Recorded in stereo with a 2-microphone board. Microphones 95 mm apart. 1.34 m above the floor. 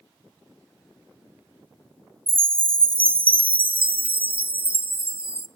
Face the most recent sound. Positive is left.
turn(degrees=-70)  # may be behind; listen again after turning